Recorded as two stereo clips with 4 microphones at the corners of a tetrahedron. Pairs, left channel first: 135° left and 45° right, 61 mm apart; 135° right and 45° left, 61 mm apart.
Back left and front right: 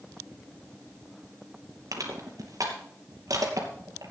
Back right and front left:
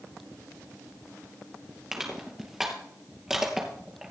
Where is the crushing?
35° right, 3 m.